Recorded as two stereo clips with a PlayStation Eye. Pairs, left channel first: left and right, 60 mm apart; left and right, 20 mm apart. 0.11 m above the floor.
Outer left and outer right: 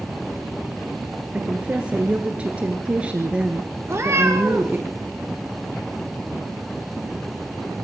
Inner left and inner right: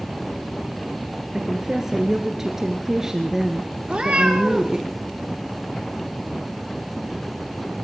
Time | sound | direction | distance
1.3 | a woman speaking | 20° right (ahead or behind) | 1.9 m
3.9 | a cat meowing | 45° right (ahead or behind) | 5 m